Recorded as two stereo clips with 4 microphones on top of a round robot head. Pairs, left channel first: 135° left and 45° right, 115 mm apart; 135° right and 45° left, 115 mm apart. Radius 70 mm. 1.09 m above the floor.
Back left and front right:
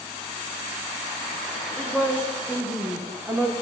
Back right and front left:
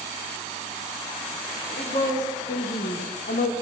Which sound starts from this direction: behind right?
A woman speaking, at 1.8 s.